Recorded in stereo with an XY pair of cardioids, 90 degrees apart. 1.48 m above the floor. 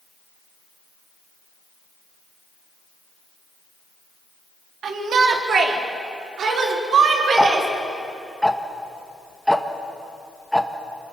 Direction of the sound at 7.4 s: Straight ahead.